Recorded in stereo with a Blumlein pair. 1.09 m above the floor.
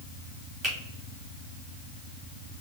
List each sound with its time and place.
0.6 s a finger snap: 15° right, 2.0 m